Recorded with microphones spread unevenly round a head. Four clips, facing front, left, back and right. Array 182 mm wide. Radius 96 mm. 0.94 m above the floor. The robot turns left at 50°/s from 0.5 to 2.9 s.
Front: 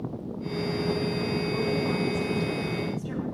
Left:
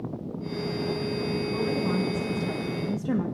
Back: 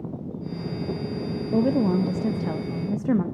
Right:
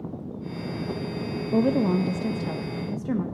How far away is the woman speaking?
About 0.5 m.